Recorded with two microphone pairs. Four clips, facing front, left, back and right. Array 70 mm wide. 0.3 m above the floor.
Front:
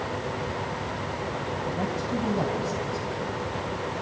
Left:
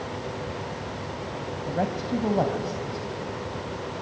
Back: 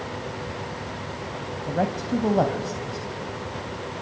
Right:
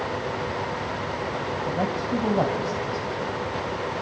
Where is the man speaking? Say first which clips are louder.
Even, back 6 dB; 175° left, 1.6 m; by 3.1 s 145° right, 1.6 m.